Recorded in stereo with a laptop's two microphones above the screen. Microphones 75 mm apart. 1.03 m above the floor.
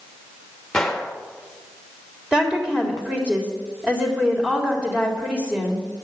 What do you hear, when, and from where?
0.7 s a gunshot: 5° left (ahead or behind), 2 m
2.3 s a woman speaking: 15° right (ahead or behind), 3.5 m